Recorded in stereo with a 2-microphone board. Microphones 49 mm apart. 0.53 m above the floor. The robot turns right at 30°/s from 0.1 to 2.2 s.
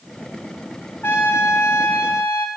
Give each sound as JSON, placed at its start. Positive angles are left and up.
{"t": 1.0, "sound": "a trumpet", "azimuth_deg": 55, "distance_m": 0.6}